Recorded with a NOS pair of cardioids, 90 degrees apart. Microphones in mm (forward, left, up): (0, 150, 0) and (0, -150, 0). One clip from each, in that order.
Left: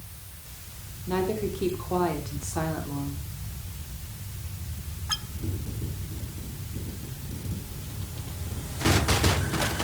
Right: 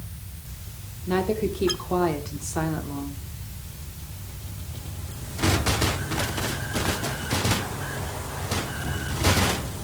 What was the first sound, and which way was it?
A woman speaking, 35° right.